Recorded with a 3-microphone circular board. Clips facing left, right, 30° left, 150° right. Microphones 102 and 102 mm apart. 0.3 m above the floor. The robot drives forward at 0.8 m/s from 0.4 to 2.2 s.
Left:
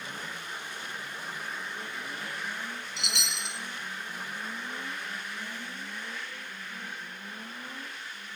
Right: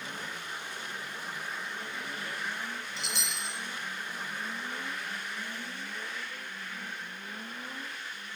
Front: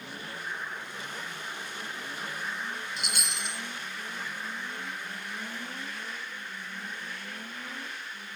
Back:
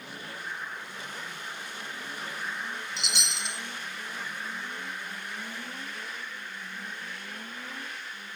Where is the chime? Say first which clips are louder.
Left 1 dB, even; 70° left, 2 m.